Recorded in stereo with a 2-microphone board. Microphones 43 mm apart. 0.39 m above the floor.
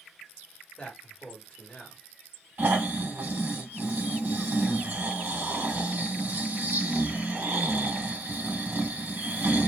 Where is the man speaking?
25° left (ahead or behind), 1.3 m.